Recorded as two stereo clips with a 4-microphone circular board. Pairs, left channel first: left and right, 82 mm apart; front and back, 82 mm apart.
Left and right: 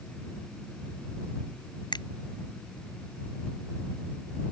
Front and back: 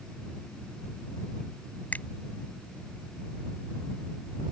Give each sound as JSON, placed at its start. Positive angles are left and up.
{"t": 1.9, "sound": "a finger snap", "azimuth_deg": 70}